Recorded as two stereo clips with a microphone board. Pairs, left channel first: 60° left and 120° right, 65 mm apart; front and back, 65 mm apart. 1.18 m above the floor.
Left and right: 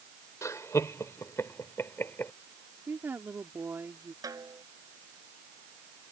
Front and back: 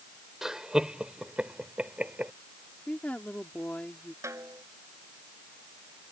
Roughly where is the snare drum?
Behind right.